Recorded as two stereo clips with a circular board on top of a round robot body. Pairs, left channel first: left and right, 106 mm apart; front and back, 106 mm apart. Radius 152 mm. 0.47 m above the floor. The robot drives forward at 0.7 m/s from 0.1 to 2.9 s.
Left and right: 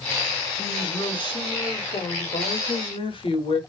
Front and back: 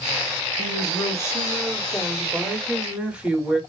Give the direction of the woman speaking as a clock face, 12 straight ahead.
10 o'clock.